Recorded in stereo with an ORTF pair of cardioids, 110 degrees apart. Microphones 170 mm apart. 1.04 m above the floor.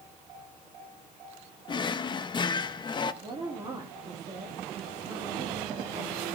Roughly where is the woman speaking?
Ahead right.